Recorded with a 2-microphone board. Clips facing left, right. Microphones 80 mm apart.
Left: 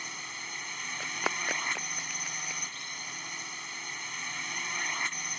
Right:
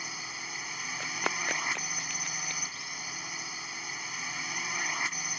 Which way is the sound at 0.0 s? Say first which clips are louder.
Right 1 dB; 5° right (ahead or behind).